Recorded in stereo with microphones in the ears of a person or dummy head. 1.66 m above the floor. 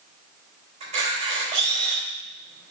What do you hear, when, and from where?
0.8 s a camera shutter: 35° right (ahead or behind), 3.5 m